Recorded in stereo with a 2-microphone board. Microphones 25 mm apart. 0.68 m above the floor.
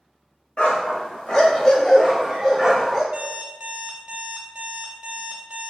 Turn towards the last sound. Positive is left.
turn(degrees=-45)  # may be behind; listen again after turning